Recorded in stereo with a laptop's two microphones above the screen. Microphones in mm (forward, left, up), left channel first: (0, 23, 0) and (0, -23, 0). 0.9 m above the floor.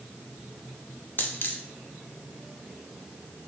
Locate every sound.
1.2 s a dropped coin: 50° left (ahead or behind), 0.7 m